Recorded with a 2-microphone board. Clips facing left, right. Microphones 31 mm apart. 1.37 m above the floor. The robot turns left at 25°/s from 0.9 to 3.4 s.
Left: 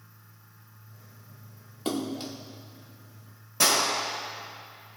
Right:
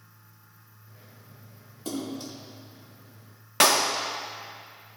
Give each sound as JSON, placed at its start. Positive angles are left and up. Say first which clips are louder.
{"t": 1.9, "sound": "a splash", "louder": "left 3 dB", "side_deg": 55, "distance_m": 1.4}
{"t": 3.6, "sound": "a clap", "louder": "right 3 dB", "side_deg": -85, "distance_m": 1.5}